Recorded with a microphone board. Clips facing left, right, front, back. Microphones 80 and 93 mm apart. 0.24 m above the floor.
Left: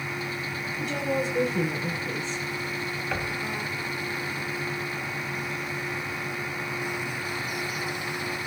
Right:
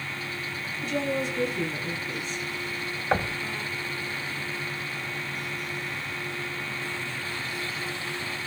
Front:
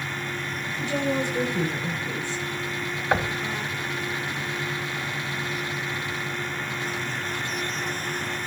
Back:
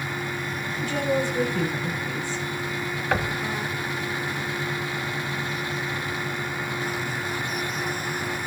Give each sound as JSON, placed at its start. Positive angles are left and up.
{"t": 0.8, "sound": "a woman speaking", "azimuth_deg": 70, "distance_m": 5.5}
{"t": 3.1, "sound": "knocking", "azimuth_deg": -70, "distance_m": 0.9}